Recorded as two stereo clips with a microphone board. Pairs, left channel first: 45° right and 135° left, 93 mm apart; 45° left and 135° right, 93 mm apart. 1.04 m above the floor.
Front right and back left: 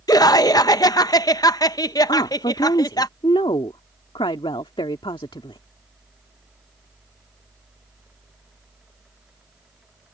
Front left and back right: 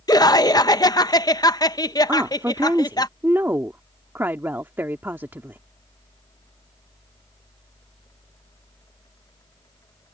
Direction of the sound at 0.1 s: Straight ahead.